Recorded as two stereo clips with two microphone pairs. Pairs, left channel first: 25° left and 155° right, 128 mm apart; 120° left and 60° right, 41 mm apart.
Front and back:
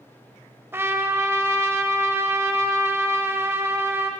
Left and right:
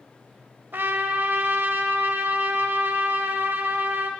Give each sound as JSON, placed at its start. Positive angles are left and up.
{"t": 0.7, "sound": "a trumpet", "azimuth_deg": -85, "distance_m": 0.7}